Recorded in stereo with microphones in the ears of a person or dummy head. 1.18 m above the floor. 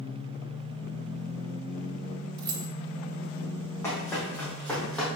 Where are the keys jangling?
25° right (ahead or behind), 1.1 m.